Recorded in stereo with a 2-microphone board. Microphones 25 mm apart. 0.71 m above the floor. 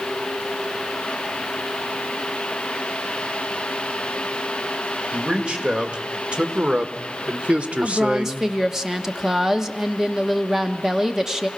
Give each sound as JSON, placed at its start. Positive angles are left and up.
{"t": 5.1, "sound": "a man speaking", "side_deg": -45, "distance_m": 2.5}
{"t": 7.8, "sound": "a woman speaking", "side_deg": -15, "distance_m": 1.3}